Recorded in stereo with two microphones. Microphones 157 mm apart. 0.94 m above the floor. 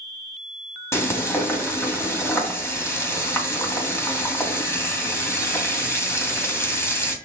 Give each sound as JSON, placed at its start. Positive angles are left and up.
{"t": 0.9, "sound": "frying", "side_deg": 15, "distance_m": 2.5}